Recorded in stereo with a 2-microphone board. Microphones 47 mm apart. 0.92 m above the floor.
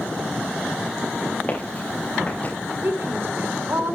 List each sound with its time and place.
1.5 s footsteps: 30° left (ahead or behind), 4.5 m; by 2.5 s 35° left (ahead or behind), 5 m
2.8 s a woman speaking: 55° right (ahead or behind), 3.5 m